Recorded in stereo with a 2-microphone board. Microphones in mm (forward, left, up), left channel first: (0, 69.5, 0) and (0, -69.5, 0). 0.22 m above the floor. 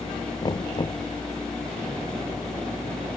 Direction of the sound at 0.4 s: 30° left (ahead or behind).